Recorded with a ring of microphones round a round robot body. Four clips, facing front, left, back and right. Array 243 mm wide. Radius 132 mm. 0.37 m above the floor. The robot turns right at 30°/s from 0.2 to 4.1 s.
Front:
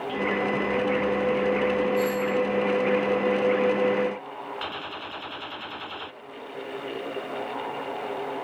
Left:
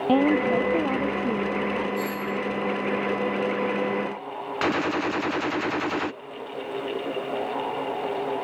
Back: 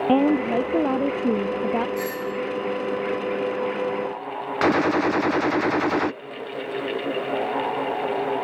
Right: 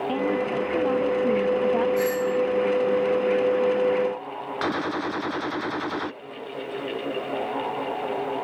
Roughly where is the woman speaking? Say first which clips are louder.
Left 7 dB, back 7 dB; behind left.